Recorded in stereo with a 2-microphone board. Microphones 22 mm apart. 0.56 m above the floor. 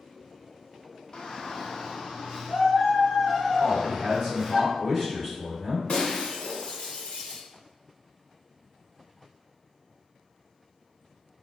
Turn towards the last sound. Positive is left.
turn(degrees=55)  # may be behind; listen again after turning